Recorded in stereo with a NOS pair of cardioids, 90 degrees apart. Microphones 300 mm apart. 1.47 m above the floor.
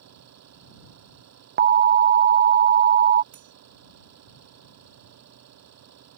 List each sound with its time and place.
0.0 s an engine running: 60° right
1.6 s an alarm: 35° right
3.3 s cutlery clinking: 70° right